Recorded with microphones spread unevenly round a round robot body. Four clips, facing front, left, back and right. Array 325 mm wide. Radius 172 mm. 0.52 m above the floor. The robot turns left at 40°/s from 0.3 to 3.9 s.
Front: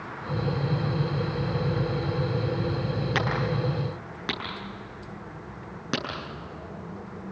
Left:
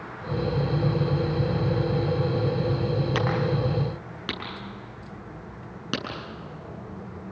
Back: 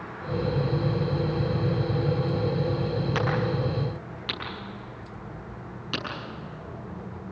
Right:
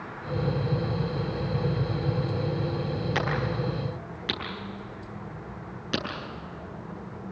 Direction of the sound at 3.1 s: 75° left.